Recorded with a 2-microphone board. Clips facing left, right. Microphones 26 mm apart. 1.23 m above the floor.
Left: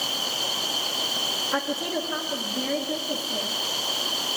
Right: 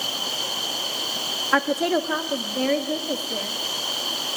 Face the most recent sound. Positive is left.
turn(degrees=-80)